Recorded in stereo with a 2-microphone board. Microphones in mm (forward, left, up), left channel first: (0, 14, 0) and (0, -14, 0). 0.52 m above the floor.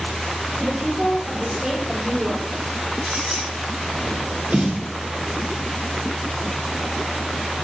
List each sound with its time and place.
0.6 s a woman speaking: 25° right (ahead or behind), 1.7 m; by 2.6 s 15° left (ahead or behind), 1.4 m
3.0 s a squeak: 25° right (ahead or behind), 1.3 m
4.5 s a snare drum: 70° right (ahead or behind), 1.2 m